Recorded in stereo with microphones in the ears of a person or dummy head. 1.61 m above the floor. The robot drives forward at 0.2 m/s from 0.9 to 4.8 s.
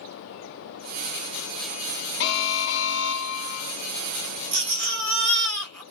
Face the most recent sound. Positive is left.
turn(degrees=5)  # may be behind; listen again after turning